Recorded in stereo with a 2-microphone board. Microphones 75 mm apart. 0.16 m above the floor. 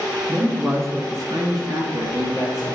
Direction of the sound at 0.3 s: 20° right (ahead or behind).